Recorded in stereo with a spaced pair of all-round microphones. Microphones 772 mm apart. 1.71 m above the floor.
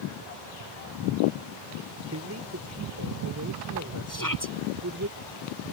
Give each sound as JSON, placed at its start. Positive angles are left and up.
{"t": 2.1, "sound": "a man speaking", "side_deg": -20}
{"t": 4.1, "sound": "a shout", "side_deg": 25}